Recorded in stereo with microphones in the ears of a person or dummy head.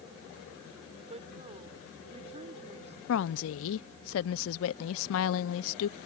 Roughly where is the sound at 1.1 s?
Right.